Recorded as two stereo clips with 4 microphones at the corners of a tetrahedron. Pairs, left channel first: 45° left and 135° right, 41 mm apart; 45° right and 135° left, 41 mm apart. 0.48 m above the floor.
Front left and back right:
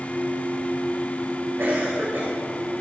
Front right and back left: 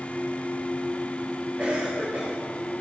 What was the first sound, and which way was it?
A cough, 175° right.